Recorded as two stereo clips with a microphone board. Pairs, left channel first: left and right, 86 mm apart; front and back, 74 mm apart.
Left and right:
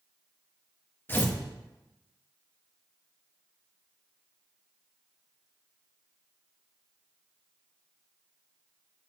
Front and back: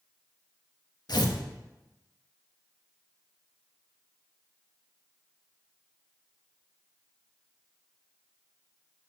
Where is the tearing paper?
25° left, 1.2 m.